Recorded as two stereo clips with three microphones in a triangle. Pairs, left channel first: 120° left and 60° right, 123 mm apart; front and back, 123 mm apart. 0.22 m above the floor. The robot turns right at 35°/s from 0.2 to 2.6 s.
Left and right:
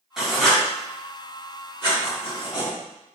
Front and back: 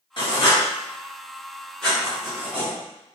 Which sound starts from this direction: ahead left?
Writing, at 0.2 s.